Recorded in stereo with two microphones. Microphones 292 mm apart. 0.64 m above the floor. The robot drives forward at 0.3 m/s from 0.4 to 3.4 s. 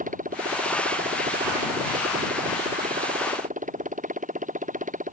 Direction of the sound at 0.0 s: 25° right (ahead or behind).